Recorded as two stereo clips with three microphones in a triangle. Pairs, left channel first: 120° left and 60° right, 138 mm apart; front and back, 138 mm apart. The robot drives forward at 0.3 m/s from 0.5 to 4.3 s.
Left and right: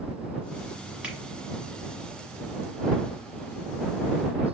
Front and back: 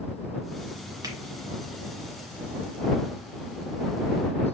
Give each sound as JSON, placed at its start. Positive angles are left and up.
{"t": 1.0, "sound": "a finger snap", "azimuth_deg": -140, "distance_m": 1.2}